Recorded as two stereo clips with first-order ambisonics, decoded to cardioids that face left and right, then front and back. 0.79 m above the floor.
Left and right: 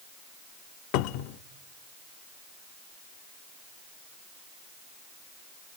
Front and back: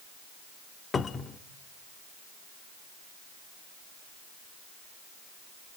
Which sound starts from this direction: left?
A cupboard door, at 0.9 s.